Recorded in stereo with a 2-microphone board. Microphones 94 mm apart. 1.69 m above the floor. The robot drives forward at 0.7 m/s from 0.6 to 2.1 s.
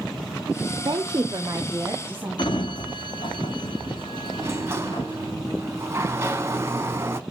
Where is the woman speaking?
50° right (ahead or behind), 0.6 m; by 2.8 s 20° right (ahead or behind), 1.2 m.